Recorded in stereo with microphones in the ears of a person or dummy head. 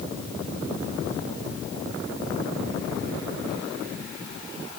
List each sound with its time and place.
Only background noise.